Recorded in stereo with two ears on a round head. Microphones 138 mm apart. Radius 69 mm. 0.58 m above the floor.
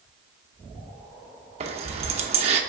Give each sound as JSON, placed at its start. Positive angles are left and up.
{"t": 1.6, "sound": "keys jangling", "side_deg": -40, "distance_m": 0.6}